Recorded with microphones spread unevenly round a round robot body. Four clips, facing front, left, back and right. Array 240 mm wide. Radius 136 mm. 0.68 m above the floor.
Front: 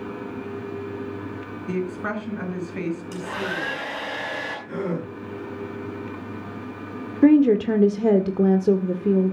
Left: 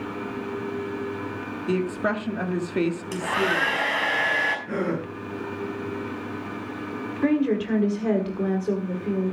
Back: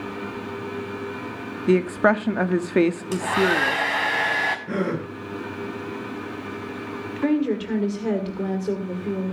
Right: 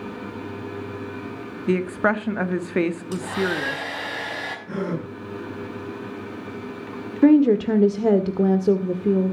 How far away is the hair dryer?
About 5.5 m.